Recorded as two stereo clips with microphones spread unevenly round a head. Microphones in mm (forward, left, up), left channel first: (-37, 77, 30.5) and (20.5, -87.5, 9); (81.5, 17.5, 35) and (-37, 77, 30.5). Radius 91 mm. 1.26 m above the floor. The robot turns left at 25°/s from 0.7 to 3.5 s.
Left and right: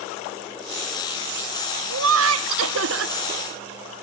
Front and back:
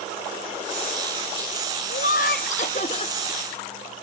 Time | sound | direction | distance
1.9 | laughter | 60° right | 0.7 m